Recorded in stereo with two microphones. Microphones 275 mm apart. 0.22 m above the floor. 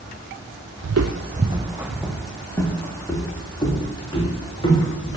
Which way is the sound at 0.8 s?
75° right (ahead or behind).